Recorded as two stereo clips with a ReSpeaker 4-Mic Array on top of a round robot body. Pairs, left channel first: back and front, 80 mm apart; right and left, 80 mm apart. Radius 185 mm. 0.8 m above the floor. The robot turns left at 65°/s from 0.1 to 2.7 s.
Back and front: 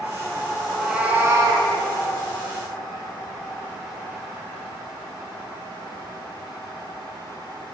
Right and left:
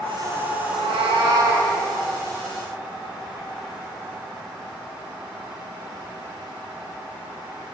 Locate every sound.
0.7 s a cat meowing: 100° left, 4.5 m; by 1.7 s 30° left, 4.5 m